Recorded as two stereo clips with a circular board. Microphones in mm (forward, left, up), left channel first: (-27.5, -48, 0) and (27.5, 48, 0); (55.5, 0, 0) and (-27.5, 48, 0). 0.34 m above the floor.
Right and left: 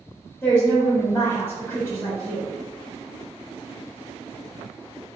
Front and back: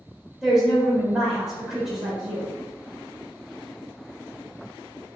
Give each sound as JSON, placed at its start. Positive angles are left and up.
{"t": 0.4, "sound": "a woman speaking", "azimuth_deg": -135, "distance_m": 1.0}